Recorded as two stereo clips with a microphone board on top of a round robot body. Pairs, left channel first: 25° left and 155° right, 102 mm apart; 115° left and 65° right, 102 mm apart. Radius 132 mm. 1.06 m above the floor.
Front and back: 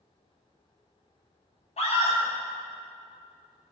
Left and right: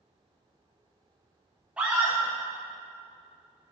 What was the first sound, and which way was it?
A scream, 10° left.